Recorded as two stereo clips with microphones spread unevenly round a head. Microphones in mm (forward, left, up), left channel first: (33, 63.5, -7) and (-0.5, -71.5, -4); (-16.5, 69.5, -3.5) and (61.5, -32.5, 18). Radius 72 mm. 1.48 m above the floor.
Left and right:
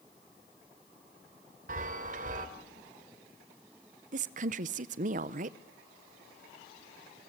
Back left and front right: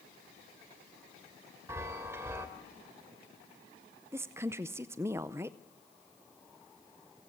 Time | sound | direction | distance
1.7 | a chime | 115° right | 1.9 m
4.1 | a woman speaking | 115° right | 0.6 m